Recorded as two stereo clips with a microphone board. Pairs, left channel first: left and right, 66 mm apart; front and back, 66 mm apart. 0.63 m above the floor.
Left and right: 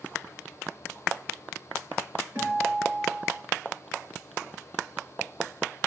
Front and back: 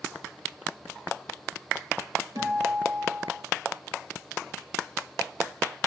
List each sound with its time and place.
2.4 s a guitar: 145° right, 7.5 m